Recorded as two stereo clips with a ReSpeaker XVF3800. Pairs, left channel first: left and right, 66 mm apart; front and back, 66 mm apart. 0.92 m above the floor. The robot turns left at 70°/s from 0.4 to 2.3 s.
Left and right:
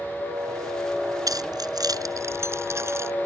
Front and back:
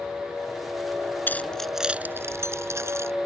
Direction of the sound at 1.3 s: 60° right.